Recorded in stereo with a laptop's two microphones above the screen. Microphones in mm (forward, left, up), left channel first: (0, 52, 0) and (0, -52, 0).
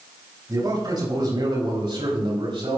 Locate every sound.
0.5 s a man speaking: 40° right (ahead or behind), 3 m; by 2.8 s 65° right (ahead or behind), 3 m